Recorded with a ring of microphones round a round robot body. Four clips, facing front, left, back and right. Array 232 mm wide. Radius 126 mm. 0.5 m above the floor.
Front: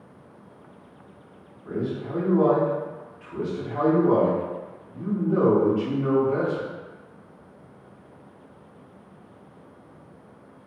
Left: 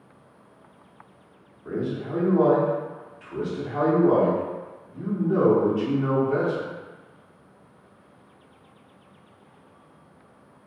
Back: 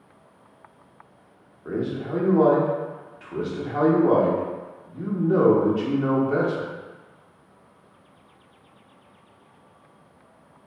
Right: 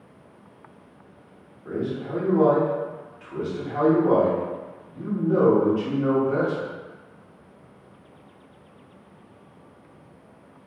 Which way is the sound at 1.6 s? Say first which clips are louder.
Even, back 2 dB; 175° right.